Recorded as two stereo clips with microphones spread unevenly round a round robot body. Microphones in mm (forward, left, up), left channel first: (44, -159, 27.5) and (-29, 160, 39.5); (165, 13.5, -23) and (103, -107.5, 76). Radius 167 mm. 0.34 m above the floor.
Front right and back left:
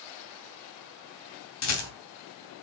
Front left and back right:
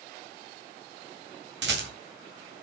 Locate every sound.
1.6 s a rattle: 115° right, 2.5 m